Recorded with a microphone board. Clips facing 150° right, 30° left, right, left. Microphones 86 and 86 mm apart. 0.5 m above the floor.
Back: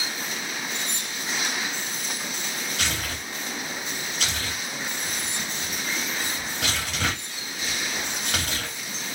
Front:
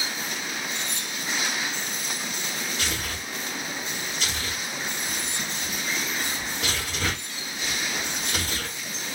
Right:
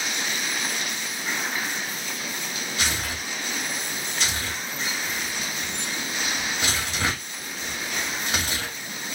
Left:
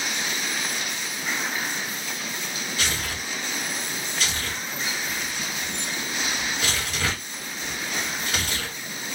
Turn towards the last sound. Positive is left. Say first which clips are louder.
# back 1 dB, right 1 dB
turn(degrees=-150)